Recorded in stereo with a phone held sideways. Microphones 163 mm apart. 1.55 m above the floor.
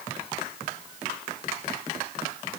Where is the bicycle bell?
I don't hear a bicycle bell.